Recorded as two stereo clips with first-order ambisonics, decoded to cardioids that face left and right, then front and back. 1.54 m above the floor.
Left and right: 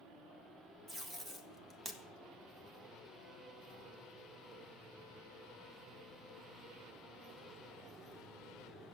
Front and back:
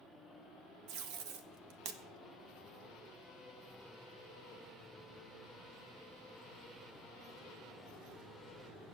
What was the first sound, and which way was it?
Tape being pulled, 175° right.